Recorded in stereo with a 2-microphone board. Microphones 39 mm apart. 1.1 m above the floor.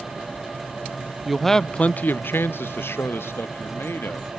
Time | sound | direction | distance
1.2 | a man speaking | 5° right (ahead or behind) | 0.6 m